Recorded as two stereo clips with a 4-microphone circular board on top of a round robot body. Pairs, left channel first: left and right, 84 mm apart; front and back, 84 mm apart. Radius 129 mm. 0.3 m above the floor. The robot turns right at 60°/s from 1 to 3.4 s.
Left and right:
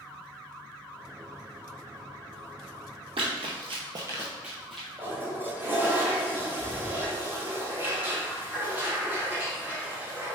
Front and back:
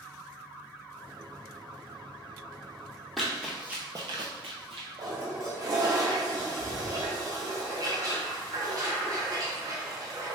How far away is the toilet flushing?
About 1.2 m.